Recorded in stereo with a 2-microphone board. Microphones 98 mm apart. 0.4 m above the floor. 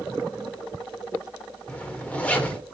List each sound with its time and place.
1.7 s a zipper: 10° left (ahead or behind), 1.5 m